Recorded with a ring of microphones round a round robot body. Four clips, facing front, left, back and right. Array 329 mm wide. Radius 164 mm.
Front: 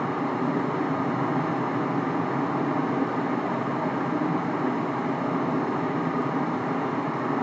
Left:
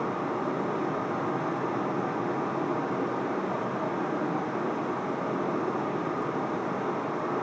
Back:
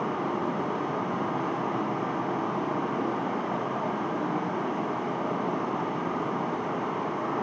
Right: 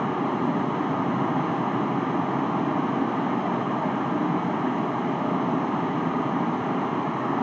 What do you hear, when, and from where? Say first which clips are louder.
0.0 s running water: right 5 dB, front 2 dB; 70° right, 3 m